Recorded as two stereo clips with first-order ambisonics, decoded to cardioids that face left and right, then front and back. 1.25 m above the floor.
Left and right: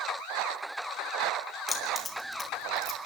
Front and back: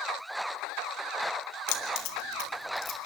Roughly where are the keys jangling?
Ahead.